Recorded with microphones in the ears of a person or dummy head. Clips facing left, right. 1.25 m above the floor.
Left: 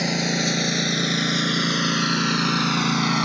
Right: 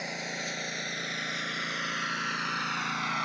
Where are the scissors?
No scissors in this recording.